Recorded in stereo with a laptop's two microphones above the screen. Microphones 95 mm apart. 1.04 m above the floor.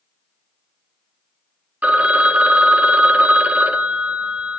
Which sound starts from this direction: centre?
A phone ringing, at 1.8 s.